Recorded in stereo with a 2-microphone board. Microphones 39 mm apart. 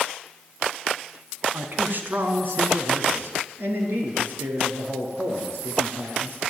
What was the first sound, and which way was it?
A man speaking, 50° right (ahead or behind).